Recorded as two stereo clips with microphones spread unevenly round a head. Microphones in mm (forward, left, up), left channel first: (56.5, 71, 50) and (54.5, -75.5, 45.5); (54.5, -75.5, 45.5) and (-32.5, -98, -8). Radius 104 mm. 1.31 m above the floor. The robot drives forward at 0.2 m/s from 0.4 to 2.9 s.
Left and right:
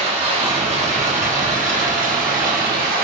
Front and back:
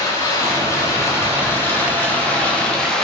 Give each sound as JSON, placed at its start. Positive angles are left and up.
{"t": 0.0, "sound": "running water", "azimuth_deg": -45, "distance_m": 1.1}